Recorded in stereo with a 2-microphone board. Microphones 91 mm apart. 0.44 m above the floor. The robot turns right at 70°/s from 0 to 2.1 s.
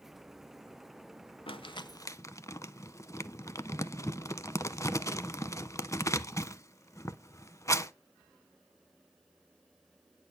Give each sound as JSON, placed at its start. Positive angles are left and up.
{"t": 1.5, "sound": "crumpling", "side_deg": 70, "distance_m": 0.6}